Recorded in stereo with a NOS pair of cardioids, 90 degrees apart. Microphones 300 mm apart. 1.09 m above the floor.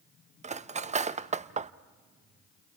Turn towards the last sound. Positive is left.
turn(degrees=-25)